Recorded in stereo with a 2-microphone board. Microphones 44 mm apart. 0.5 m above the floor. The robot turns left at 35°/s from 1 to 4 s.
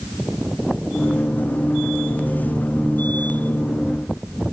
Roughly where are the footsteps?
No footsteps in this recording.